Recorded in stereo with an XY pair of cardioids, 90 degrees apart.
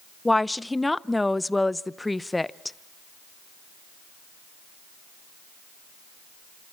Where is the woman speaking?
15° left, 0.6 m.